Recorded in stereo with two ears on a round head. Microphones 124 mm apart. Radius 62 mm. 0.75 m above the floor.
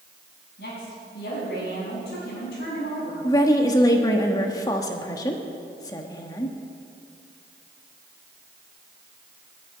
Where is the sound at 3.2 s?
25° left (ahead or behind), 1.3 m.